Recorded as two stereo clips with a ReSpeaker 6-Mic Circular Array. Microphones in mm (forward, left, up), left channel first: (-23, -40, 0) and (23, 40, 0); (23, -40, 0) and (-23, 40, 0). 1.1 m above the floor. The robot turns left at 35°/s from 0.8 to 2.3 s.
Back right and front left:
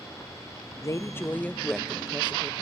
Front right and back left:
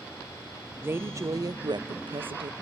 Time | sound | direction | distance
0.8 | a woman speaking | 170° right | 0.7 m